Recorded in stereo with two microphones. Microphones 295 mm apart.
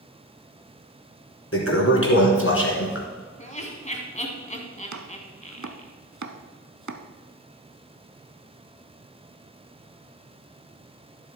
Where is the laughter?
25° left (ahead or behind), 1.8 m.